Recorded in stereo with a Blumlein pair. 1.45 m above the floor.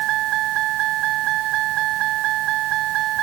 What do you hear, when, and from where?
0.0 s a vehicle: 35° right